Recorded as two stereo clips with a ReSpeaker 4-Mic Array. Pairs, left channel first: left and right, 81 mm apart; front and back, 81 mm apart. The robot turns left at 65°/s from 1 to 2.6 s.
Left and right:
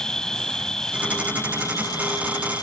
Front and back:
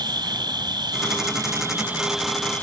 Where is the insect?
170° left; by 2.6 s 70° left.